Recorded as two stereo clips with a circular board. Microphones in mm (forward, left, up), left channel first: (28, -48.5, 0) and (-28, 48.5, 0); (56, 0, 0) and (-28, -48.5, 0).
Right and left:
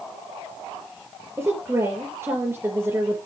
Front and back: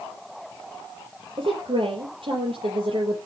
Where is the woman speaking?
170° right, 3.5 m.